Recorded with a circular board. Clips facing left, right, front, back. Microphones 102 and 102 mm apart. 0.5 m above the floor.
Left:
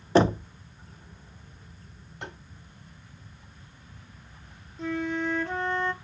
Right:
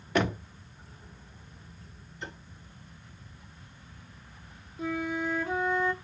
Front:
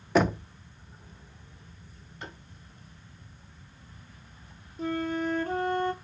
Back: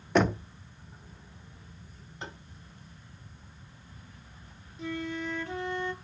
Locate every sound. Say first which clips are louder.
0.1 s knocking: left 7 dB, front 1 dB; 90° left, 0.5 m
2.2 s tapping: left 1 dB, back 1 dB; 115° left, 4.5 m
4.8 s a flute: left 2 dB, front 5 dB; 10° right, 0.9 m